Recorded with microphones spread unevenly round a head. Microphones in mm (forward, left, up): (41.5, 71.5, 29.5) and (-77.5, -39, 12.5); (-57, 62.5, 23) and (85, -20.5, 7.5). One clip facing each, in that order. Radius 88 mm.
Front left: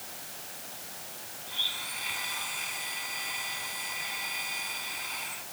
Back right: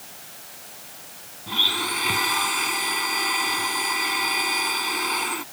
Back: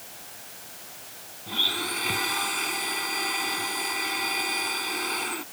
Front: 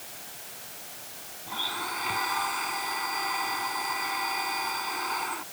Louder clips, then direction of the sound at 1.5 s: Back right 19 dB, back 3 dB; 150° right.